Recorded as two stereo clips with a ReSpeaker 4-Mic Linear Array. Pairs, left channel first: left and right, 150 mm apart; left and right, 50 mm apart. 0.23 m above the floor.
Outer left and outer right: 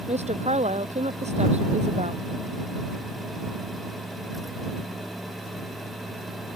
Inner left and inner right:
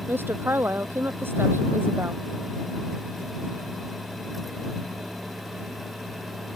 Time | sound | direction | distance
0.1 | a woman speaking | 50° right (ahead or behind) | ?